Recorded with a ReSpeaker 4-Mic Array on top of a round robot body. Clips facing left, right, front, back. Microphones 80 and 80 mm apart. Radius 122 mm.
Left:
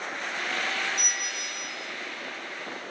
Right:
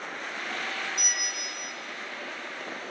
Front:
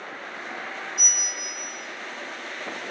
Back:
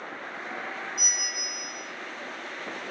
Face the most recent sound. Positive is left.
turn(degrees=-5)